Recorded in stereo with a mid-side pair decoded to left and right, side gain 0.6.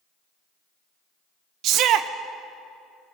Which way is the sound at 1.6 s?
65° right.